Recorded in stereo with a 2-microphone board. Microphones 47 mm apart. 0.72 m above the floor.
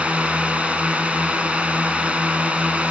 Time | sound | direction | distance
0.0 | a drone | 30° right (ahead or behind) | ?